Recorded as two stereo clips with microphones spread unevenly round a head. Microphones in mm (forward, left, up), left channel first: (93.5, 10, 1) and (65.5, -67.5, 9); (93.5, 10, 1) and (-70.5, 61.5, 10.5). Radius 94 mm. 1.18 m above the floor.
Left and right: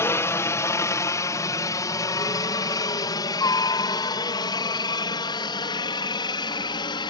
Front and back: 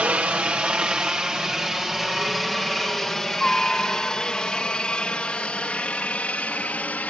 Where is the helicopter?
85° left; by 7.1 s 65° left.